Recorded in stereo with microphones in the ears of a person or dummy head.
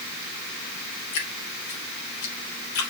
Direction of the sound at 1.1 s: 85° left.